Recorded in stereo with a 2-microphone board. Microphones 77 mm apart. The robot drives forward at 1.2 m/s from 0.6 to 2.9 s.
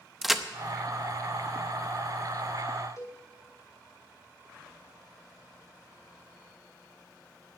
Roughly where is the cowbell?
Left.